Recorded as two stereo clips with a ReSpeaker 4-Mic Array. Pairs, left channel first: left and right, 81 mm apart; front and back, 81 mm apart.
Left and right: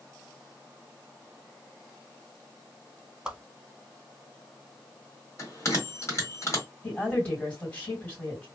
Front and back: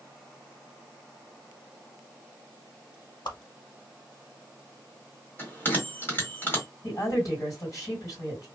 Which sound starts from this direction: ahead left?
A bell, at 5.4 s.